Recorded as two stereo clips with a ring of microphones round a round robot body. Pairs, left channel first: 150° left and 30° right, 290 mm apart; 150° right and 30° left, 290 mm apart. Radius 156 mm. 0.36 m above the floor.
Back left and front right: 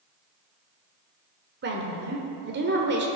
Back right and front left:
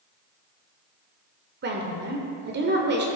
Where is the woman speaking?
Straight ahead, 1.4 m.